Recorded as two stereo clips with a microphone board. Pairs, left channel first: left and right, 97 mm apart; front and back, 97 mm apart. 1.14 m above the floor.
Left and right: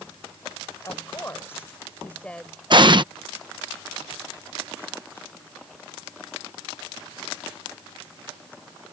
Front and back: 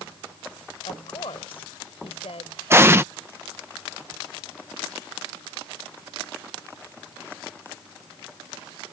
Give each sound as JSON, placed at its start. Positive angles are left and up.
{"t": 0.8, "sound": "a woman speaking", "azimuth_deg": 30}
{"t": 2.7, "sound": "an explosion", "azimuth_deg": -120}